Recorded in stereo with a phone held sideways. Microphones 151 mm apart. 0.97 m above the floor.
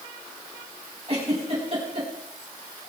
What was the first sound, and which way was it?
A giggle, 40° right (ahead or behind).